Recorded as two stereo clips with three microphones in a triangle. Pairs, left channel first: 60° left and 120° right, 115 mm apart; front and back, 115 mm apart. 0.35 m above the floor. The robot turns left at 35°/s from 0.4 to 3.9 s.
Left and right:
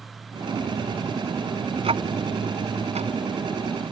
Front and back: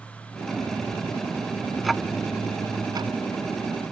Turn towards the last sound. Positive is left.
turn(degrees=-160)